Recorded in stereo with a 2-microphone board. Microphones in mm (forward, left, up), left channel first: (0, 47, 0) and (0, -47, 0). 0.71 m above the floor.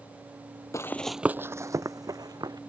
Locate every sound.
0.7 s running footsteps: 35° left (ahead or behind); by 2.6 s 45° right (ahead or behind)